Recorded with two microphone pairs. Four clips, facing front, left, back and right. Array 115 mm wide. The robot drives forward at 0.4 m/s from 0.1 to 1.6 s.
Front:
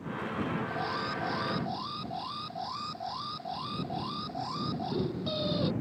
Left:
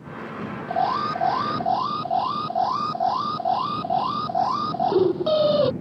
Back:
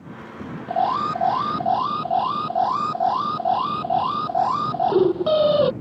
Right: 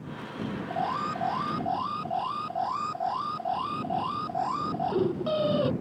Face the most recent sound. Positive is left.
turn(degrees=155)